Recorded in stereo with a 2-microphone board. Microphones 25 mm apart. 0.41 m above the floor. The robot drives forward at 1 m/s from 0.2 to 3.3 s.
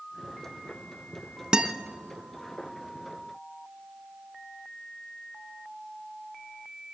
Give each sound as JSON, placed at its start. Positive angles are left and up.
{"t": 1.5, "sound": "a guitar", "side_deg": -30, "distance_m": 1.0}